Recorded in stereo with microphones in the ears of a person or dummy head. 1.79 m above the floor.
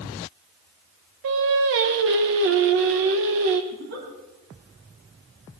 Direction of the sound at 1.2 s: 60° right (ahead or behind).